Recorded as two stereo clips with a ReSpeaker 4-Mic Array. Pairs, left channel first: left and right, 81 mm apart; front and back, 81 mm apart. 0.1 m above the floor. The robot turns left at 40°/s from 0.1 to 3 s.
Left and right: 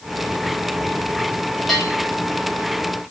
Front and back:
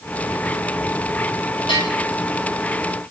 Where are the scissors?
I don't hear scissors.